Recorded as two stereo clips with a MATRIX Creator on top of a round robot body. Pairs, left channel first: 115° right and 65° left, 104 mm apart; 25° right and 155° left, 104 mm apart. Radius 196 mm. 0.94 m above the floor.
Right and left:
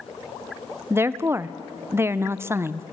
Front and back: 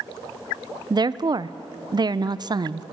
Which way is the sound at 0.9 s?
125° left.